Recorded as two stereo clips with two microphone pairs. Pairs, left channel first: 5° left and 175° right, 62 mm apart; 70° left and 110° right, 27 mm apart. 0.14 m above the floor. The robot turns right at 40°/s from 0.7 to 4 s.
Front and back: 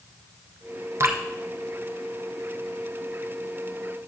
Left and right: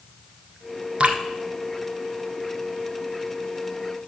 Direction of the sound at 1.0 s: 140° right.